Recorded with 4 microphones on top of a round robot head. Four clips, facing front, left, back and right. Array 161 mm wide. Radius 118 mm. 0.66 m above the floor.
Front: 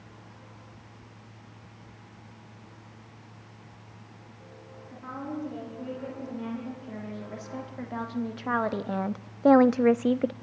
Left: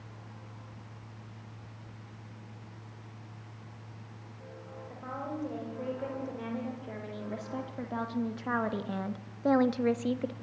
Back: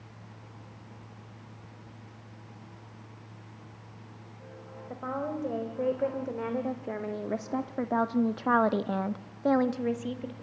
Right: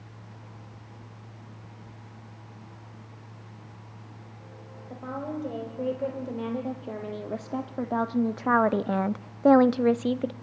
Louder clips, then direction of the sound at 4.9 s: Right 5 dB, back 3 dB; 155° right.